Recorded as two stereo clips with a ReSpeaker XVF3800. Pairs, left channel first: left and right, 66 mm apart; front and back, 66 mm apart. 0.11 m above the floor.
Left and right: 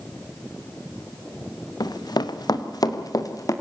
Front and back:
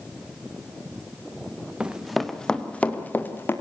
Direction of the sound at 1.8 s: 105° left.